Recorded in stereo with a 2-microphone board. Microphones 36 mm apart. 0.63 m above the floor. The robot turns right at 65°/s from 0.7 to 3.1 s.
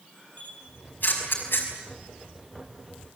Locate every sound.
0.4 s a camera shutter: 40° left (ahead or behind), 5 m; by 1.7 s 70° left (ahead or behind), 5 m